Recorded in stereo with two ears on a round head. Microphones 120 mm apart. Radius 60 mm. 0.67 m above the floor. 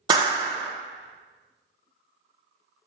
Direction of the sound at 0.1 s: 30° right (ahead or behind).